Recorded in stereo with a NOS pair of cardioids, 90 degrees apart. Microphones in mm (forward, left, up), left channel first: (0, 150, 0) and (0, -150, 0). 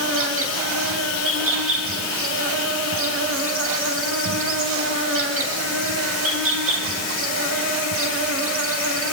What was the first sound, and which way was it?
An insect, 45° right.